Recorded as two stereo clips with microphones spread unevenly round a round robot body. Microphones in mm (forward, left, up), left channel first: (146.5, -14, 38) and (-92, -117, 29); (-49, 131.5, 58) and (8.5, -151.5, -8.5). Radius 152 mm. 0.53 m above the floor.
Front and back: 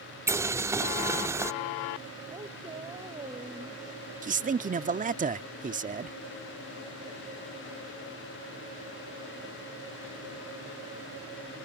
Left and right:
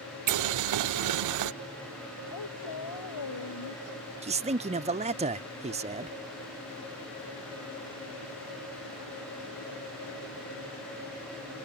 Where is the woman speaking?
125° left.